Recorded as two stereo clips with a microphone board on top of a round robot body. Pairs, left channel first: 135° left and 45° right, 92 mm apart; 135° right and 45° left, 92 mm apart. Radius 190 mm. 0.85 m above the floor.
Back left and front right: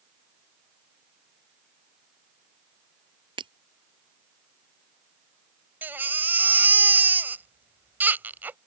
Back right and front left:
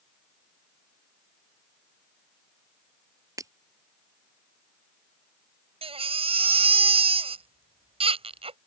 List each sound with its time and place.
3.4 s breaking glass: 10° right
5.8 s a baby crying: 25° left